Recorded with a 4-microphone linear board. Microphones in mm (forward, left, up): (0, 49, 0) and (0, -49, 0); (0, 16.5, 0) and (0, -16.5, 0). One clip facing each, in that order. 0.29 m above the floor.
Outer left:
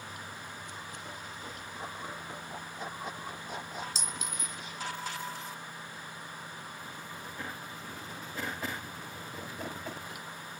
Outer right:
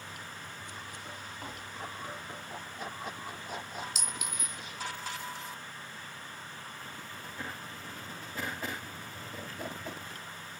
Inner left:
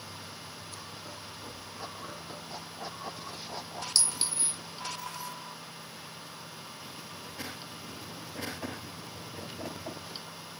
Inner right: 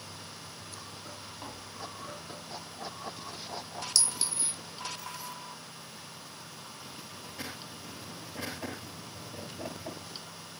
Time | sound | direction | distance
1.4 | tapping | 60° right (ahead or behind) | 1.3 m
4.0 | a clink | 30° left (ahead or behind) | 1.4 m